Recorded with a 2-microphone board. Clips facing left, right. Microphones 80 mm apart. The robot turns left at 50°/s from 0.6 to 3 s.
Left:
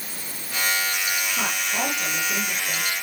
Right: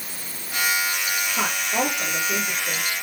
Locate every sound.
1.4 s a woman speaking: 40° right, 7 m; by 2.9 s 115° right, 7 m